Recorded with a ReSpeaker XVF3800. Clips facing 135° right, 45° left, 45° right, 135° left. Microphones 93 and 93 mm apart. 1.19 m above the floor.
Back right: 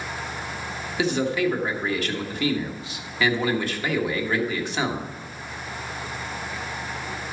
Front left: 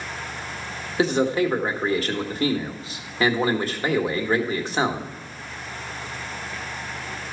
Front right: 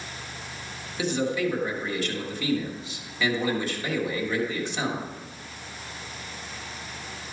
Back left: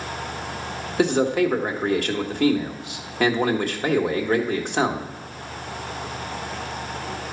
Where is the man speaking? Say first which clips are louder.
Front left 3 dB, back left 7 dB; 100° left, 1.5 m.